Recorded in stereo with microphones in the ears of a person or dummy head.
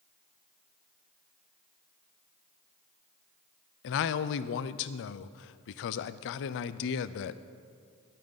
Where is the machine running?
No machine running in this recording.